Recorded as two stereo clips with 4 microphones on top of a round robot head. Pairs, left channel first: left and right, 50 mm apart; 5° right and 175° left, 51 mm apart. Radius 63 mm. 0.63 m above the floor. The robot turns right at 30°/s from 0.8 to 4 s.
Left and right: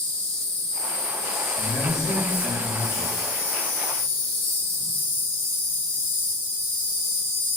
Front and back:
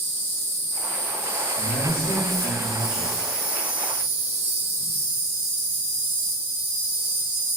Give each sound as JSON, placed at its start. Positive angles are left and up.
{"t": 0.0, "sound": "an insect", "azimuth_deg": 35, "distance_m": 1.0}
{"t": 1.6, "sound": "a man speaking", "azimuth_deg": -5, "distance_m": 1.2}